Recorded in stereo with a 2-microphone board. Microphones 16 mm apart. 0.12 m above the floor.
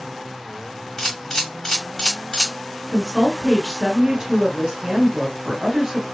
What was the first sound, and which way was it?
A camera shutter, 35° left (ahead or behind).